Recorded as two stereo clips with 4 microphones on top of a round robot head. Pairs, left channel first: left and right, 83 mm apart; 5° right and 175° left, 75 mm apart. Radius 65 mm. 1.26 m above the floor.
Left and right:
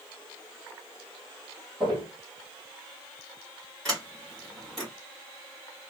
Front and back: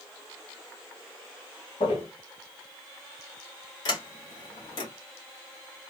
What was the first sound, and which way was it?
Footsteps, 10° right.